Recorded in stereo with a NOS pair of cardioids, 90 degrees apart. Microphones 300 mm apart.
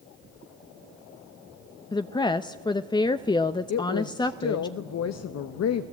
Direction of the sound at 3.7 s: 55° left.